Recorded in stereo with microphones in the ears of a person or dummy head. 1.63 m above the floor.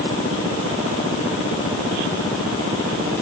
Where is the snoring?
No snoring in this recording.